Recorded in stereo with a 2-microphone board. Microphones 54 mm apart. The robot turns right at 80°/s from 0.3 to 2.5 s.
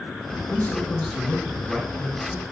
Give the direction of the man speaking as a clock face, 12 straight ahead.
8 o'clock.